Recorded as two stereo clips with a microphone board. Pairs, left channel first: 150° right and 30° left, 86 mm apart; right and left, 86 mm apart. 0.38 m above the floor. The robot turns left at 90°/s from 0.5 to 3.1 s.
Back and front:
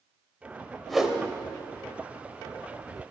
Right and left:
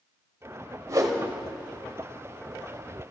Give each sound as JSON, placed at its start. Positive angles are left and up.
{"t": 0.9, "sound": "a whoosh", "azimuth_deg": 125, "distance_m": 1.3}